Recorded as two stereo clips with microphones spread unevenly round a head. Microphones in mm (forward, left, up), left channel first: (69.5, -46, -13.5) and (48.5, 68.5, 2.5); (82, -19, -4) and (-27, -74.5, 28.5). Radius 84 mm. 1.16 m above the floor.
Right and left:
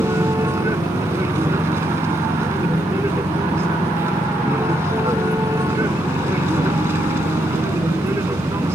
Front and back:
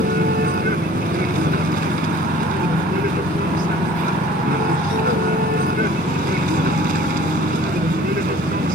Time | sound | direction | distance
0.0 | a vehicle | 175° left | ?